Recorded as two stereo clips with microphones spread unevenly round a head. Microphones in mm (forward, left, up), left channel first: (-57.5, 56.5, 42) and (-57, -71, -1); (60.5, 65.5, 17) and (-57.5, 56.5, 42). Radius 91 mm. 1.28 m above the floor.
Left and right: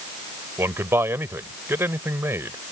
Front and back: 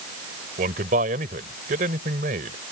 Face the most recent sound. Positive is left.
turn(degrees=-165)